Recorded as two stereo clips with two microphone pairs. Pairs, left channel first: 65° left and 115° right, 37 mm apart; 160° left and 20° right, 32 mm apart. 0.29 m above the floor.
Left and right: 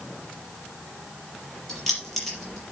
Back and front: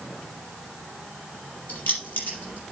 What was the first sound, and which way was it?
Keys jangling, 150° left.